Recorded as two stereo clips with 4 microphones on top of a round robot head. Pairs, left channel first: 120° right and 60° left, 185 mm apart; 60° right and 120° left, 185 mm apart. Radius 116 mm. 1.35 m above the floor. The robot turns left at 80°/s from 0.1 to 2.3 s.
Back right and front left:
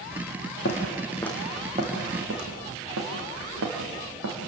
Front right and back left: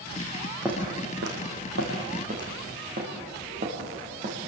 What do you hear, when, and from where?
0.7 s footsteps: 155° right, 4.5 m; by 4.4 s 70° left, 6.5 m